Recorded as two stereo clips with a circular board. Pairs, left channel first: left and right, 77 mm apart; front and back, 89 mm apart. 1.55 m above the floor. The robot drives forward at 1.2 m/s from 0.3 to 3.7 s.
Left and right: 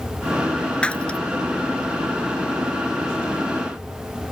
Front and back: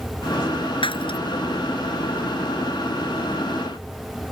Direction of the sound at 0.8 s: 15° left.